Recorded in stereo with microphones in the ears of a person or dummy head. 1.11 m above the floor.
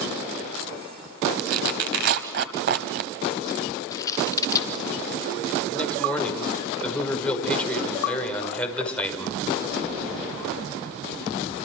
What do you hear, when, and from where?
1.4 s tearing paper: 55° right (ahead or behind), 1.4 m
3.9 s scissors: 20° left (ahead or behind), 3 m
5.7 s a man speaking: 10° left (ahead or behind), 5.5 m